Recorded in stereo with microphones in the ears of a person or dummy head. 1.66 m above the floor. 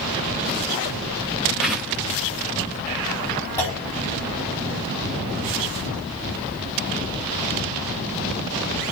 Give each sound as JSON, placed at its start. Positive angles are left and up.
{"t": 1.6, "sound": "a whoosh", "side_deg": -5, "distance_m": 1.7}
{"t": 3.6, "sound": "a clunk", "side_deg": 10, "distance_m": 4.0}